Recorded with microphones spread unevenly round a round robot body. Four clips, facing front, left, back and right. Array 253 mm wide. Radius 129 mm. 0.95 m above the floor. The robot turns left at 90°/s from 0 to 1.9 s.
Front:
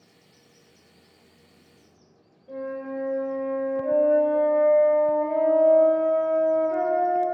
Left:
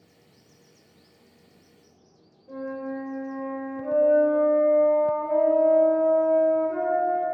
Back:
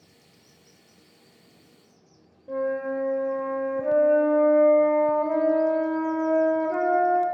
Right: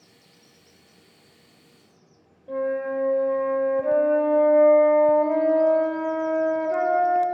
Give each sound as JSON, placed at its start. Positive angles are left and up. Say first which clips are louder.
{"t": 2.5, "sound": "a flute", "louder": "right 7 dB, back 5 dB", "azimuth_deg": -150, "distance_m": 0.7}